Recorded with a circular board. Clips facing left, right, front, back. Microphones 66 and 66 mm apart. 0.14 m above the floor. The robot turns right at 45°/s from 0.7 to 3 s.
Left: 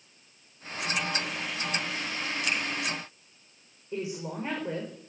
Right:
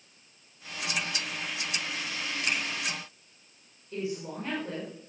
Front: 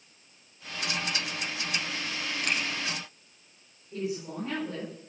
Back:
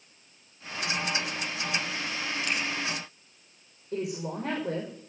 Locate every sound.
2.4 s a finger snap: 40° right, 3.5 m; by 2.6 s 35° right, 3.5 m
3.9 s a woman speaking: 160° left, 7 m